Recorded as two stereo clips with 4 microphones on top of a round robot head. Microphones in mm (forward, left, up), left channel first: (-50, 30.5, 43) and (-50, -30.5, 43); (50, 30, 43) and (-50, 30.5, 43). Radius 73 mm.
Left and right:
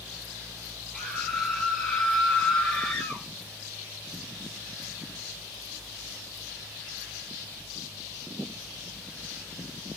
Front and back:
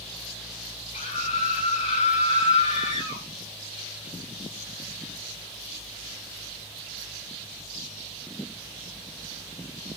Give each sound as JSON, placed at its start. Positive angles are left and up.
{"t": 0.9, "sound": "a scream", "azimuth_deg": 5, "distance_m": 9.5}